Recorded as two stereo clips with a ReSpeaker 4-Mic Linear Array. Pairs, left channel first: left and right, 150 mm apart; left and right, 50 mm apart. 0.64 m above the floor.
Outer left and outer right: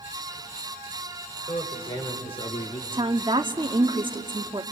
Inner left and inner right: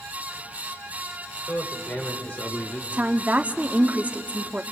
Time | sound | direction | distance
1.5 | a man speaking | 35° left (ahead or behind) | 3.5 m
2.9 | a woman speaking | 30° right (ahead or behind) | 1.1 m